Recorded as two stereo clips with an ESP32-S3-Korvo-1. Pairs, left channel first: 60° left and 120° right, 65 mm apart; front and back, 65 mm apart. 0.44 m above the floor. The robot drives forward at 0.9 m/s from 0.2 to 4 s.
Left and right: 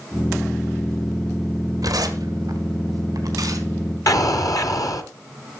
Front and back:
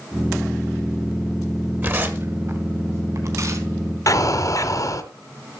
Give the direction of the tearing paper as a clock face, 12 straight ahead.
4 o'clock.